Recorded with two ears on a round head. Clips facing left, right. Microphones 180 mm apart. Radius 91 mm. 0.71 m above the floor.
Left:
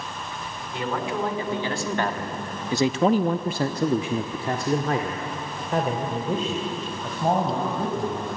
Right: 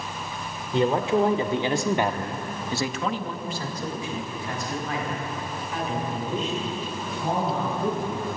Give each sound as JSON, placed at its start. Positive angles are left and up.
{"t": 0.7, "sound": "a man speaking", "side_deg": -25, "distance_m": 2.0}